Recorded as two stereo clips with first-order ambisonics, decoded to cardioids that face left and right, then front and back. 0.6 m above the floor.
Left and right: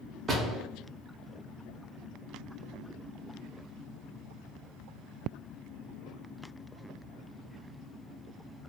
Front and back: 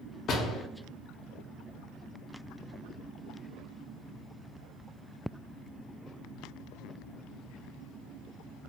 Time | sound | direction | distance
0.3 | a door slam | 40° right | 0.6 m